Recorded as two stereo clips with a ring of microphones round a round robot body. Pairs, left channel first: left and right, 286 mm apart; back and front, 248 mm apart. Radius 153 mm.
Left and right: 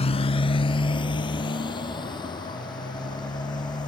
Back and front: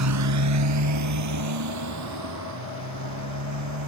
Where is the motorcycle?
20° left; by 3.9 s 15° left.